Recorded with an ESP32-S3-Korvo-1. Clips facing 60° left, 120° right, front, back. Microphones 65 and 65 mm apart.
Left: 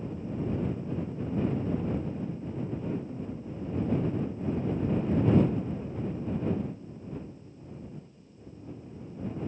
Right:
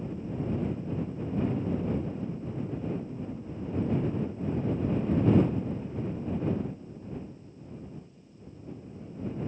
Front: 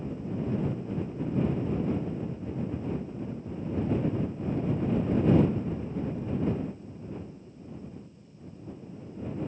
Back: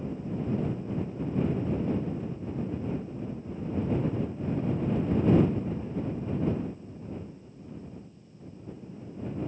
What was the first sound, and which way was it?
Only background noise.